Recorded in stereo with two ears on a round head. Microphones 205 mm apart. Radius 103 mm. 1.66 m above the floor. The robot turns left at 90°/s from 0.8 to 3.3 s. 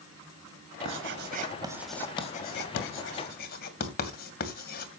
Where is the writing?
60° right (ahead or behind), 2.5 m; by 4.9 s 45° left (ahead or behind), 2.5 m.